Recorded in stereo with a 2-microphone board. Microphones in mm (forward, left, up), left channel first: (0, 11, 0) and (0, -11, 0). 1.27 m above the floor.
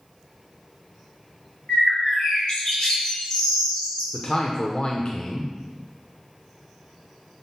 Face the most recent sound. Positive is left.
turn(degrees=45)  # may be behind; listen again after turning